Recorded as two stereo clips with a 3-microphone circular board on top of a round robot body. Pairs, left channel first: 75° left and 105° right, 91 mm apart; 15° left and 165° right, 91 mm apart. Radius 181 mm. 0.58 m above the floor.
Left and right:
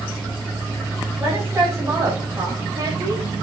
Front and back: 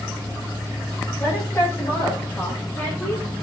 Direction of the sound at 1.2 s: 40° right.